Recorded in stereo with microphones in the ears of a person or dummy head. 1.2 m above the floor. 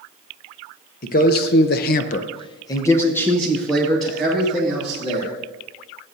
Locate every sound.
1.0 s a man speaking: 35° left (ahead or behind), 1.0 m; by 5.3 s centre (ahead or behind), 2.5 m